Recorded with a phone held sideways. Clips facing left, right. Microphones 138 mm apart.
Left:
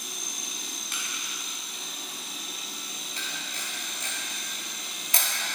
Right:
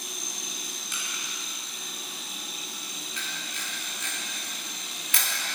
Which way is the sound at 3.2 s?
35° left (ahead or behind).